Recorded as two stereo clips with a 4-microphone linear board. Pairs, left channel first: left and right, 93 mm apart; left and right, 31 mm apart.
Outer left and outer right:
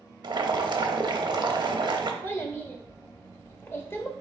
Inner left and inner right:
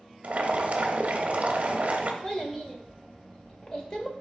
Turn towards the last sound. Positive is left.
turn(degrees=20)  # may be behind; listen again after turning